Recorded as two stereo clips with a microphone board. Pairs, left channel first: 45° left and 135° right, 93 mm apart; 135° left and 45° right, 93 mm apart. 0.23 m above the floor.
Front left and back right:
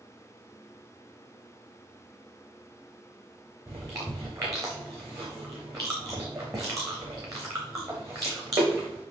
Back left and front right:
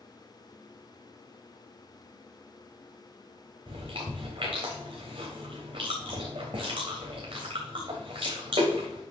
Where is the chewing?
80° right, 3.5 m.